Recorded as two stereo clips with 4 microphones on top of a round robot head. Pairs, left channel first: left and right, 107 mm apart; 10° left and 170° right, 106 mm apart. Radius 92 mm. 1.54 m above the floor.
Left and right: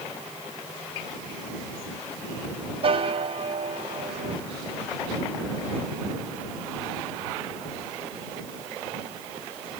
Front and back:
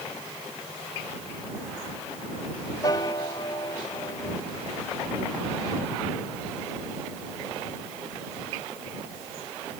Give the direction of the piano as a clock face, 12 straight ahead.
2 o'clock.